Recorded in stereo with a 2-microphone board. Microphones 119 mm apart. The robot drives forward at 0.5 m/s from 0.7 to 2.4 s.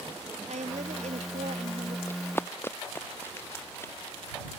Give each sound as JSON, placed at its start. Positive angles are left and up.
{"t": 0.5, "sound": "a woman speaking", "side_deg": -75}
{"t": 2.1, "sound": "running footsteps", "side_deg": 20}